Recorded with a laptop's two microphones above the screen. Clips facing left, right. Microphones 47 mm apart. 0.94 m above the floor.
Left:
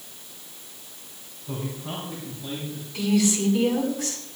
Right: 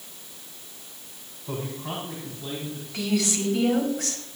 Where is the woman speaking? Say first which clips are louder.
Left 4 dB; 65° right (ahead or behind), 6.5 m.